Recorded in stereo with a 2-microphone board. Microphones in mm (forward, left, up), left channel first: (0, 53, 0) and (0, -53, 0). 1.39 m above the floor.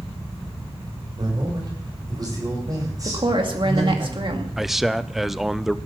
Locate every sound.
1.2 s a man speaking: 45° right (ahead or behind), 7 m; by 4.0 s 30° right (ahead or behind), 9.5 m
3.0 s a woman speaking: 50° right (ahead or behind), 2 m
4.6 s a man speaking: centre (ahead or behind), 0.7 m